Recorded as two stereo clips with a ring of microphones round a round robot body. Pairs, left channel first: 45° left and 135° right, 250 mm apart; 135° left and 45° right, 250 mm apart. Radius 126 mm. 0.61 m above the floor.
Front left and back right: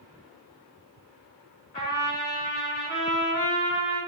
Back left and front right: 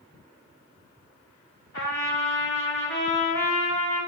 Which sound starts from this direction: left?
A trumpet, at 1.7 s.